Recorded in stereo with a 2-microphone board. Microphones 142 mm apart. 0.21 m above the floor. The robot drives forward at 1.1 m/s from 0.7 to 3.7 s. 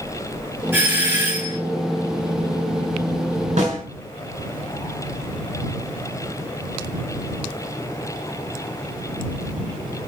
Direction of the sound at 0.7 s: 15° right (ahead or behind).